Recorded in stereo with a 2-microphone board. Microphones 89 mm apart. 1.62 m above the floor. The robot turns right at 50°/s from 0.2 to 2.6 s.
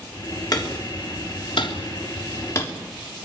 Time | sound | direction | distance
0.5 | hammering | 45° left (ahead or behind) | 3.5 m